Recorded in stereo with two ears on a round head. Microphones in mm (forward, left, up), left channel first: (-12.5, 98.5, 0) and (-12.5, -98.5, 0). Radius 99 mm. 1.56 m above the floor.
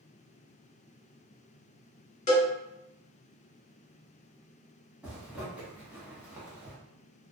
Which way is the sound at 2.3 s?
35° left (ahead or behind).